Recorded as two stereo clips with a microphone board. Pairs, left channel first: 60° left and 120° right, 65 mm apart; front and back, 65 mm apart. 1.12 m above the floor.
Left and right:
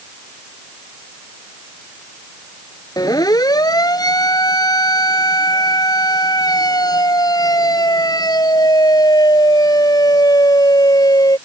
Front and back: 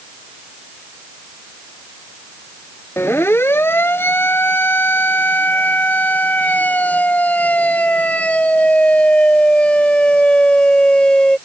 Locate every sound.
3.0 s a siren: 50° left; by 11.4 s 75° left